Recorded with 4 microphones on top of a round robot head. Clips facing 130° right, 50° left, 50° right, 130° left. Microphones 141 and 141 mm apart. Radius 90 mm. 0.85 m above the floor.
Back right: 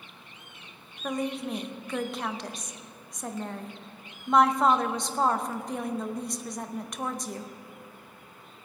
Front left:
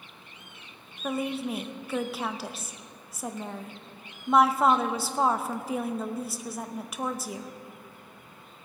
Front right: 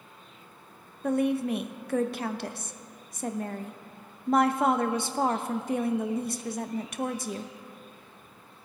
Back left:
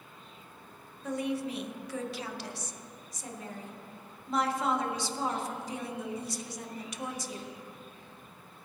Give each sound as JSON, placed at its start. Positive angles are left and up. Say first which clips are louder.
{"t": 1.0, "sound": "a woman speaking", "louder": "front left 1 dB, front right 7 dB", "azimuth_deg": -35, "distance_m": 0.8}